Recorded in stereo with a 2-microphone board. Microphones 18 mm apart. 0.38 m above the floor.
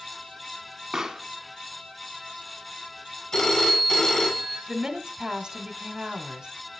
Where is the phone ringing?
45° left (ahead or behind), 2 m.